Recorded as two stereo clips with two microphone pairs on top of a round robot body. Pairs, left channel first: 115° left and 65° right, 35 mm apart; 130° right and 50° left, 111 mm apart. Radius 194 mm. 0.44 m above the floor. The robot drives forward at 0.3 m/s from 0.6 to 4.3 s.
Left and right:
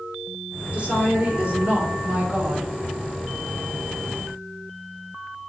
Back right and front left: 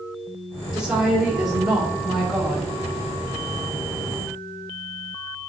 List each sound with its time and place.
0.7 s a woman speaking: 30° right, 2 m; by 2.7 s 45° right, 1.7 m